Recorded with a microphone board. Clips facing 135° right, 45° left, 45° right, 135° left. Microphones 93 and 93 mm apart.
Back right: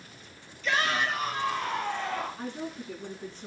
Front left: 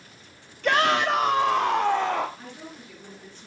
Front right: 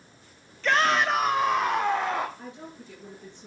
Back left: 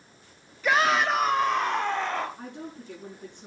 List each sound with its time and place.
0.6 s a shout: 55° left, 0.9 m; by 2.3 s 35° left, 1.9 m
2.4 s a woman speaking: 175° left, 8 m